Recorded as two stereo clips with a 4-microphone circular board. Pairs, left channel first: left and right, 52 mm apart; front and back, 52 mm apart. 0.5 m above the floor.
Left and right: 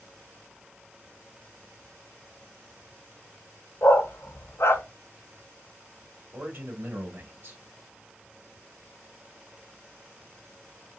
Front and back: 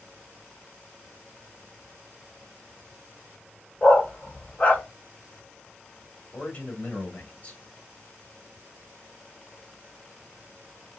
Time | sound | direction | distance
3.8 | a dog barking | 60° left | 0.8 m
6.3 | a man speaking | 50° right | 1.3 m